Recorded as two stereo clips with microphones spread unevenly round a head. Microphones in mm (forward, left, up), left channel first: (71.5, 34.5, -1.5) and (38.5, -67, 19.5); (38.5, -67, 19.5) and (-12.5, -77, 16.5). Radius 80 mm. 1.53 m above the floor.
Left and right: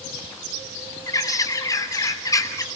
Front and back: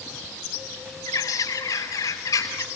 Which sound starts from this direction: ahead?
A bird, at 1.1 s.